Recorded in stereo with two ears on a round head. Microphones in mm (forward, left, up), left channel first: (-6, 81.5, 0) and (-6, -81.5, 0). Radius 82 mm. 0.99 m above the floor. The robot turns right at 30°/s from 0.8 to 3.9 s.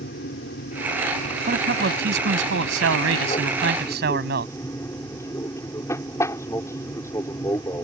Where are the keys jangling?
No keys jangling in this recording.